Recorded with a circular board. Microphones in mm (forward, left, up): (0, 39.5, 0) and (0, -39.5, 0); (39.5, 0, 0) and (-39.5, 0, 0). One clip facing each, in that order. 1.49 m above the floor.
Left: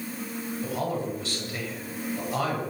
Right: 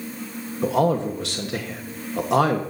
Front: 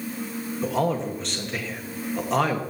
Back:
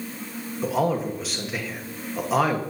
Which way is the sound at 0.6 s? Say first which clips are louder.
Right 11 dB, back 1 dB; 95° right.